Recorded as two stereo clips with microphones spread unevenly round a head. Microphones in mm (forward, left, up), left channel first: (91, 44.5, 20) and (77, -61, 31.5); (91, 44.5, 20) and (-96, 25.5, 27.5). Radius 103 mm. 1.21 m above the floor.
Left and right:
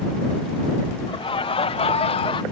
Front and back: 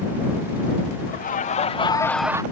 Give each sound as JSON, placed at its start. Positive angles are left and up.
{"t": 1.1, "sound": "laughter", "azimuth_deg": 50}